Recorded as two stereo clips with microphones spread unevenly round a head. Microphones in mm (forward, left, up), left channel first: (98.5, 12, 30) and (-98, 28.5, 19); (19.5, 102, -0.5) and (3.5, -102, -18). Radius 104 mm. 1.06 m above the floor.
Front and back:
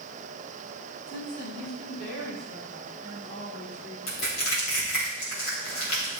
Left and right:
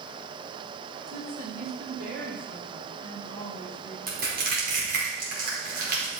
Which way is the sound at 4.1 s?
50° right.